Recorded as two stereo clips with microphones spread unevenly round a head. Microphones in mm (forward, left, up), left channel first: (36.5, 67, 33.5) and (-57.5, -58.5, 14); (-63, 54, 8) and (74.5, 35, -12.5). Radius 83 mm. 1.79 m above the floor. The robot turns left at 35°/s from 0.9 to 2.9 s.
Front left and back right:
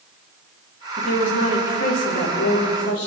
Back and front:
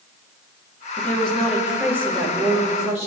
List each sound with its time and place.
1.0 s a woman speaking: 100° left, 5 m; by 3.1 s 35° left, 5 m